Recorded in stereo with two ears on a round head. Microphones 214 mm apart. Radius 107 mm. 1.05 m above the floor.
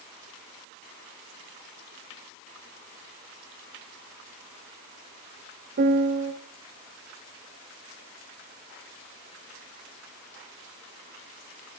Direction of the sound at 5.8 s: 45° right (ahead or behind).